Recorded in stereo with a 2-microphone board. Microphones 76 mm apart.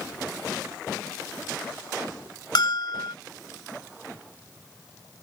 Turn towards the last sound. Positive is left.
turn(degrees=70)  # may be behind; listen again after turning